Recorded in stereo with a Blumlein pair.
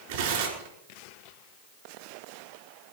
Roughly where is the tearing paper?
Ahead right.